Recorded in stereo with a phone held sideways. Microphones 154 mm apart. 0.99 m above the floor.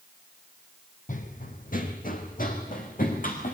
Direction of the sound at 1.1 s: 60° left (ahead or behind).